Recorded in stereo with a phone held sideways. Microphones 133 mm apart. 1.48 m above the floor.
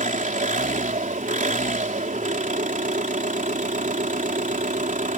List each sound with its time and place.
0.0 s an engine running: 75° right (ahead or behind)